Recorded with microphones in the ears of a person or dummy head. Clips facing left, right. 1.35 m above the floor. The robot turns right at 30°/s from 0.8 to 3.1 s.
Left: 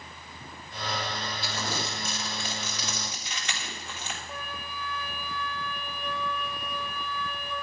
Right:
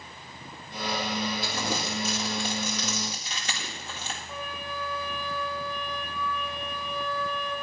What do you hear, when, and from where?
1.4 s crumpling: 70° right (ahead or behind), 1.8 m; by 4.2 s 35° right (ahead or behind), 1.8 m
4.3 s a flute: 5° left (ahead or behind), 2.5 m